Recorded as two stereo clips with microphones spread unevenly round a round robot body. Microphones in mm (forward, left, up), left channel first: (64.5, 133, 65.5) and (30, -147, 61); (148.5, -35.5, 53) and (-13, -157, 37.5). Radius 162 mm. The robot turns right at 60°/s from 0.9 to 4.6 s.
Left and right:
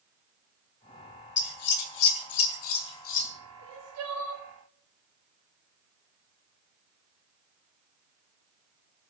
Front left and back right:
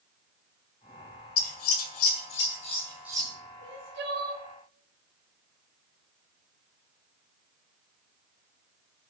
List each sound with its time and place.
1.4 s scissors: 30° left, 1.5 m; by 3.3 s 145° left, 1.5 m
3.6 s crying: 150° right, 2.5 m; by 4.5 s 100° right, 2.5 m